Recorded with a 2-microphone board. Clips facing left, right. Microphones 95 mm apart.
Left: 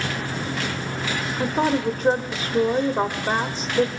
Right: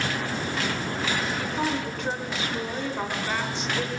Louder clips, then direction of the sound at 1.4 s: Left 6 dB; 45° left (ahead or behind).